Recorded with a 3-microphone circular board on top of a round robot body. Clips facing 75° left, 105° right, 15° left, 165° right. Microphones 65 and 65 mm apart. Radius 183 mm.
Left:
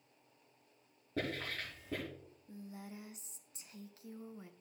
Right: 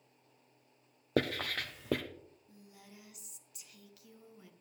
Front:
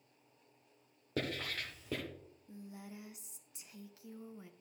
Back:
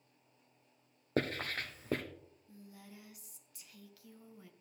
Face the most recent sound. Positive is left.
turn(degrees=65)